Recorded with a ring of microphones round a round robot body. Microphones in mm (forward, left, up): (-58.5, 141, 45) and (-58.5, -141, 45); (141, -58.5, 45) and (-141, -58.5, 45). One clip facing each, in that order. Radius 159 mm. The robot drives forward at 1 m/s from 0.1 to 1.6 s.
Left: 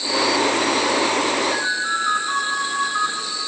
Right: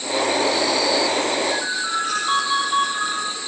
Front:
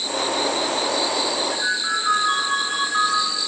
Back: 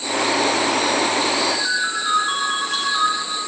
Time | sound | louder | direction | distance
1.5 | a ringtone | even, back 2 dB | 120° right | 8.5 m